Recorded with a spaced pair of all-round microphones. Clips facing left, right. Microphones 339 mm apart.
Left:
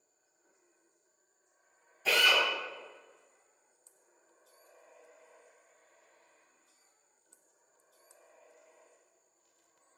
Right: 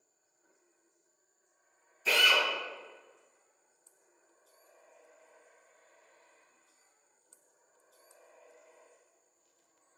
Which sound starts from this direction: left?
A drill, at 2.0 s.